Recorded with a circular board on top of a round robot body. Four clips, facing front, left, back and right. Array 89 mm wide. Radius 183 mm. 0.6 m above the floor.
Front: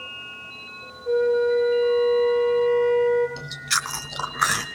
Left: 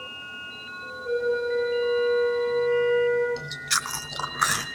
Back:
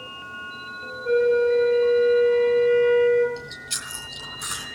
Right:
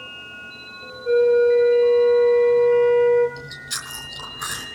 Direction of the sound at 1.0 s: 165° right.